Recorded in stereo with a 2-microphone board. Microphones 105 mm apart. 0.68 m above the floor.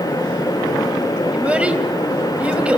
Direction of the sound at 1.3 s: 10° right (ahead or behind).